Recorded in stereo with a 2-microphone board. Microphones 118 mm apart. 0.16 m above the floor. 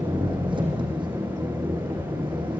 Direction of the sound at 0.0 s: 45° right (ahead or behind).